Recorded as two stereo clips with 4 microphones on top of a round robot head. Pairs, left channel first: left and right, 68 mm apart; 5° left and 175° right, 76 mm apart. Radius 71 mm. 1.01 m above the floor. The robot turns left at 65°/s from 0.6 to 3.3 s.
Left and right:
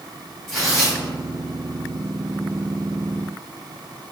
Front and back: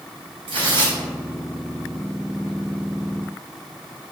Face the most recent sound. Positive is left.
turn(degrees=0)